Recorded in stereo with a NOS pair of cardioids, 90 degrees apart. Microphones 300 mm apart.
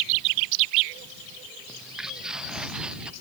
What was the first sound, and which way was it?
Footsteps, straight ahead.